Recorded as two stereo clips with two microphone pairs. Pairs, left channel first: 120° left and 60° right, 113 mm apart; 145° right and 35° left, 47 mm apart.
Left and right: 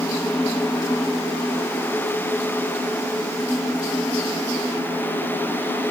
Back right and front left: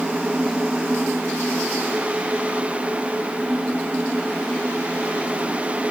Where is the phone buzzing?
No phone buzzing in this recording.